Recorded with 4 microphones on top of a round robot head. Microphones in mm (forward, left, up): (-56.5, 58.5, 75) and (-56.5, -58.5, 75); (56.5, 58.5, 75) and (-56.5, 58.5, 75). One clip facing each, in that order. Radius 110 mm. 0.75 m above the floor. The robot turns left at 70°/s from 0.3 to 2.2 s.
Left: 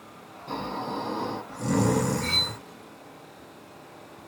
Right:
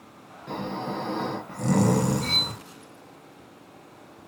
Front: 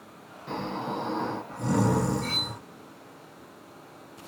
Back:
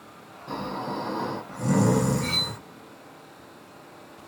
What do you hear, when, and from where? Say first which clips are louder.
0.5 s snoring: right 1 dB, back 1 dB; 40° right, 0.8 m; by 2.6 s 165° right, 0.8 m
2.2 s cutlery clinking: even, back 2 dB; 150° right, 1.3 m